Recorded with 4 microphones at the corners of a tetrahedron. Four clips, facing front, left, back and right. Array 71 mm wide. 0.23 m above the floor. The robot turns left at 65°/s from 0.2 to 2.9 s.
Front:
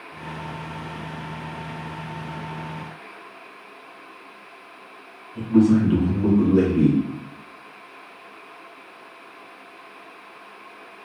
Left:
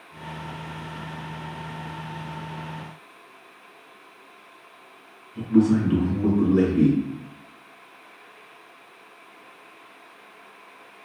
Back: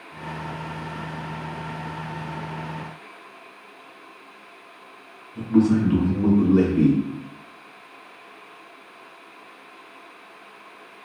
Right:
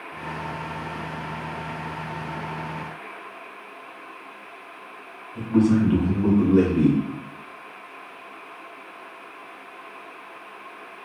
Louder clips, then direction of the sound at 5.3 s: Even, front 2 dB; 110° right.